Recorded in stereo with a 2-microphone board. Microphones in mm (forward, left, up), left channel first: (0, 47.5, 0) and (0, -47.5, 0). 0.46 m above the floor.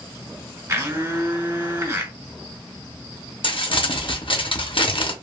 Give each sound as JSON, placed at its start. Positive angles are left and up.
{"t": 0.7, "sound": "a blender", "side_deg": -30, "distance_m": 1.3}
{"t": 3.4, "sound": "crumpling", "side_deg": 60, "distance_m": 0.6}